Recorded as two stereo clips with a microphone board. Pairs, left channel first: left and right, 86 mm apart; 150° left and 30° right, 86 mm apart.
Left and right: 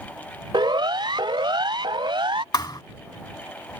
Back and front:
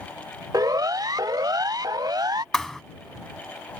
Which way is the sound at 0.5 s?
70° right.